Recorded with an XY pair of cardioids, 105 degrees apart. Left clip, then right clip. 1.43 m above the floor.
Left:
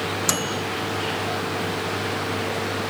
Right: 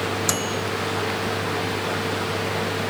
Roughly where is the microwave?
Ahead.